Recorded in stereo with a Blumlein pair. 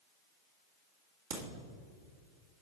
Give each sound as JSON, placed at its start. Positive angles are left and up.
{"t": 1.3, "sound": "a crack", "azimuth_deg": -55, "distance_m": 2.0}